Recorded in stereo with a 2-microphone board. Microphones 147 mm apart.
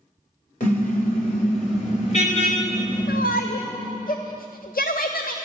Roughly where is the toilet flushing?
No toilet flushing in this recording.